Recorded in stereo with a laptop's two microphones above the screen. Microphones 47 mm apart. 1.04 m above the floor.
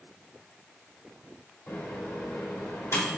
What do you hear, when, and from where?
1.7 s a microwave: 80° left, 2 m